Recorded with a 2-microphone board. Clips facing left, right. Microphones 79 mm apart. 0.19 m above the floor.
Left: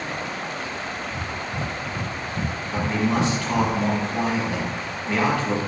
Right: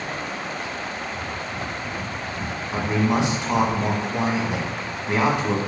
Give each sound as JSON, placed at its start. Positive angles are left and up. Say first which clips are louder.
{"t": 1.1, "sound": "breathing", "louder": "even", "side_deg": 55, "distance_m": 1.1}
{"t": 2.7, "sound": "a man speaking", "louder": "right 1 dB", "side_deg": -20, "distance_m": 1.3}